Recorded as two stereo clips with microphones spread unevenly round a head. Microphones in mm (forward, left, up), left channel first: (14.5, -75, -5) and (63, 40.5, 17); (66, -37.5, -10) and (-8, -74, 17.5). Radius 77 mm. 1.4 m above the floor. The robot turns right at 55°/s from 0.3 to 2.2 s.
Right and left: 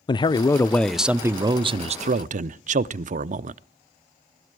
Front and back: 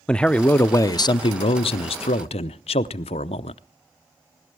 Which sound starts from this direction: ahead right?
A man speaking, at 0.1 s.